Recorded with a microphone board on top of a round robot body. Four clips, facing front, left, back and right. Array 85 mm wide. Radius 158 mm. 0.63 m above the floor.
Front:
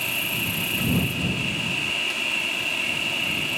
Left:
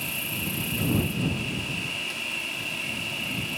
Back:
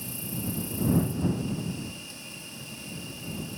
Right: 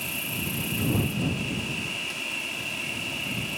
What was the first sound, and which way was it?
An insect, straight ahead.